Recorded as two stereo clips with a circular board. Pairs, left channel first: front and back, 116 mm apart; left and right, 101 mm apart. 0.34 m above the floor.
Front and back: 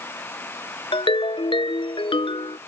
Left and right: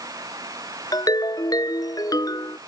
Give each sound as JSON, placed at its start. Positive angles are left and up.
{"t": 0.9, "sound": "a ringtone", "azimuth_deg": 40}